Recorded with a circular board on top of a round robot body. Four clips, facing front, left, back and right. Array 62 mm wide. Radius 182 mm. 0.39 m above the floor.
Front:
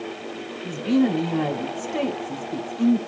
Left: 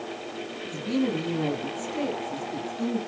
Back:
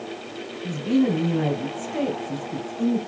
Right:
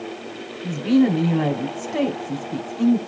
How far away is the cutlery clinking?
I don't hear cutlery clinking.